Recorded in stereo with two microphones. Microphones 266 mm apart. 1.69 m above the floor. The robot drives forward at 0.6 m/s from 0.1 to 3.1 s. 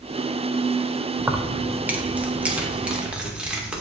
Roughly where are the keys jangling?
Centre.